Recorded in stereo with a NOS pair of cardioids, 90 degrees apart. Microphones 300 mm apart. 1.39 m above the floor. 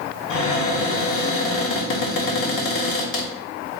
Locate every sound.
0.3 s a cupboard door: 50° left, 1.3 m